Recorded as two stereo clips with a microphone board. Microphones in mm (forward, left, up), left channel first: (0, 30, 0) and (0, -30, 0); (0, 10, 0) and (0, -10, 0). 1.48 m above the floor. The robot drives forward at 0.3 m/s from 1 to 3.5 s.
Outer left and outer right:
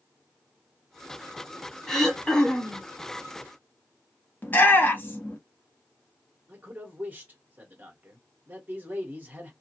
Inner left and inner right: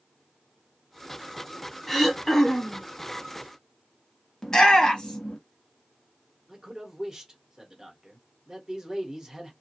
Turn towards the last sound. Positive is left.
turn(degrees=-30)  # may be behind; listen again after turning